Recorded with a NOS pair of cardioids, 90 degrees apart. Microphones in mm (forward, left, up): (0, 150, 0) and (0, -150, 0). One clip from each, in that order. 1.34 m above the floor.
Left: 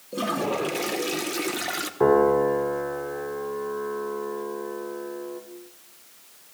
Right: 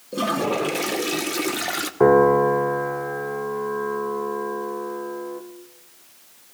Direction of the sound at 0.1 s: 15° right.